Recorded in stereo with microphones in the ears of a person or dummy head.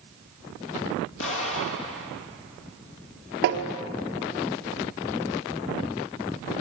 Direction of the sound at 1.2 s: 80° left.